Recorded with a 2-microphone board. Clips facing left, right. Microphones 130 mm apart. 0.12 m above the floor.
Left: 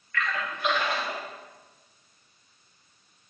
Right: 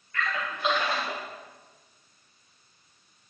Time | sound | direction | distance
0.1 | a splash | 25° right (ahead or behind) | 4 m